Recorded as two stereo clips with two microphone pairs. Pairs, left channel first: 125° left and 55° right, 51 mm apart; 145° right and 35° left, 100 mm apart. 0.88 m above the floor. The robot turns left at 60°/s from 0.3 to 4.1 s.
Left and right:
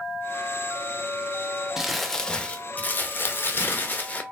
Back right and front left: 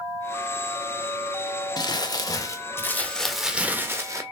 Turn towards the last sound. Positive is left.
turn(degrees=85)